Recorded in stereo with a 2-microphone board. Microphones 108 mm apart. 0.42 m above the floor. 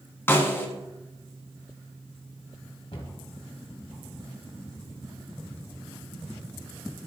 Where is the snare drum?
20° left (ahead or behind), 1.9 m.